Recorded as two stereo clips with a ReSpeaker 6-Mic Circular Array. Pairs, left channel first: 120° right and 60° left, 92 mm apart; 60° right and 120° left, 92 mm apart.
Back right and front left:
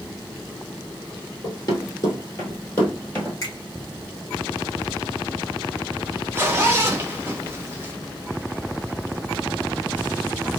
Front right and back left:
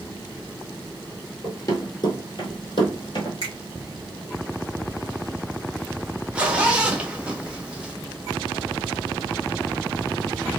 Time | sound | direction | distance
1.4 | running footsteps | 95° right | 1.5 m
3.4 | a finger snap | 70° right | 1.0 m
6.3 | a zipper | 60° left | 0.6 m